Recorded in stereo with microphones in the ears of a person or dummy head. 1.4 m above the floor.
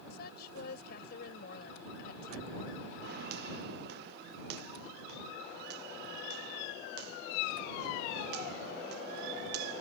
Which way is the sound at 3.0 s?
65° right (ahead or behind).